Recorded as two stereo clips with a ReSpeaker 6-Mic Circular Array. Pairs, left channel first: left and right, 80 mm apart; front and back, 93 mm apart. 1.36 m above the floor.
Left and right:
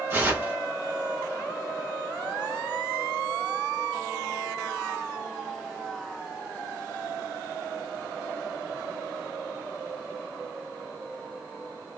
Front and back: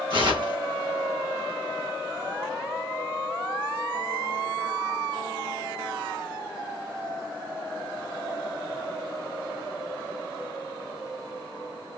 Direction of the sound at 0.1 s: 150° right.